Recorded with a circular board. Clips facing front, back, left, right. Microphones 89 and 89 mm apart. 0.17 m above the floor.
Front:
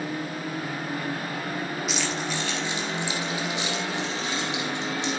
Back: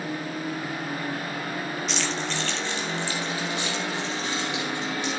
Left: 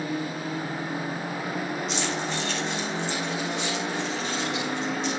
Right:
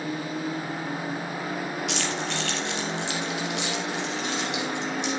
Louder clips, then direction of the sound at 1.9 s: Even, left 1 dB; 85° right.